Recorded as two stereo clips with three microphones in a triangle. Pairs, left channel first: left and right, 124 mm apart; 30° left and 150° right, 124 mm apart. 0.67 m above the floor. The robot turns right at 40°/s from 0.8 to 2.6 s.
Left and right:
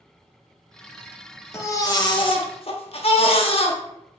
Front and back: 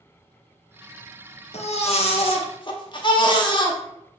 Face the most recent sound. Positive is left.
turn(degrees=65)